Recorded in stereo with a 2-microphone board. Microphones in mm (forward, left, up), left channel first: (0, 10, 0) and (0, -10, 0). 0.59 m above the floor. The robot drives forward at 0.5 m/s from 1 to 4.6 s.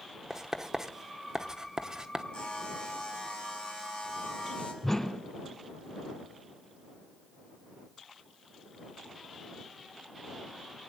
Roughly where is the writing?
Right.